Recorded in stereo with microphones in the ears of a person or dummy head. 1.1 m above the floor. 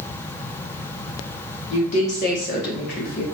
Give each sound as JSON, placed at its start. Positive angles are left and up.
{"t": 1.7, "sound": "a woman speaking", "side_deg": 35, "distance_m": 1.1}